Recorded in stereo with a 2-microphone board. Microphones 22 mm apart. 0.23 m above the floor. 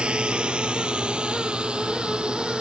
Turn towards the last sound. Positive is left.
turn(degrees=-45)  # may be behind; listen again after turning